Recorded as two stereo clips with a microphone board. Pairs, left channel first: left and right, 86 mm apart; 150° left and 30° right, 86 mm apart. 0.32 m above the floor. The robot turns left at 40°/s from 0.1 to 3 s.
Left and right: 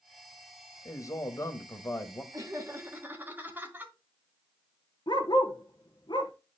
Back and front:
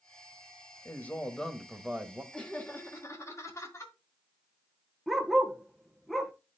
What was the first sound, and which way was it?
A man speaking, 100° left.